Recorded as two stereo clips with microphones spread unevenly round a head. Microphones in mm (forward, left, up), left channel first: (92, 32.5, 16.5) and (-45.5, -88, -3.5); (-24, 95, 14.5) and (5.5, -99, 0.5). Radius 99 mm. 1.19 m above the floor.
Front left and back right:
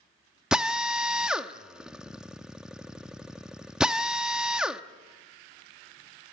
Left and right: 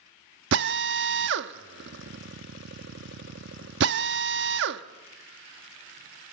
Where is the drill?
50° right, 1.0 m.